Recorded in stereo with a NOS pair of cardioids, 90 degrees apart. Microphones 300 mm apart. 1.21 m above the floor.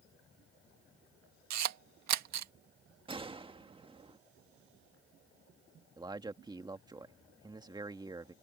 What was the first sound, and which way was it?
A camera shutter, 65° right.